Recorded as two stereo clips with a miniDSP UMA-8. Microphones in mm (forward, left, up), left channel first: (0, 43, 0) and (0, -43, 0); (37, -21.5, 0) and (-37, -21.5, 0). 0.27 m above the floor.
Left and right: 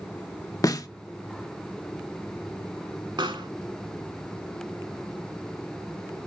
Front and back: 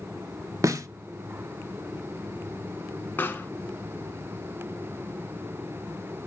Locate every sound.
0.6 s a snare drum: 135° left, 0.5 m
3.2 s a pop: 65° right, 0.9 m